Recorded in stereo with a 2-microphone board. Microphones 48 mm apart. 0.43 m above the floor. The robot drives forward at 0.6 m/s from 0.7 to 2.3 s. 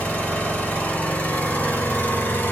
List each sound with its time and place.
0.0 s an engine running: 25° left (ahead or behind), 2.5 m; by 2.5 s 40° left (ahead or behind), 1.8 m